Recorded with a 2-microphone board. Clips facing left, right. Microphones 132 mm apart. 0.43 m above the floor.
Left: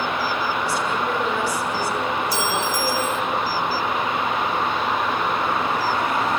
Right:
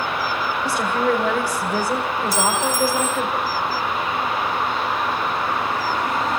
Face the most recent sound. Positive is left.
turn(degrees=-40)  # may be behind; listen again after turning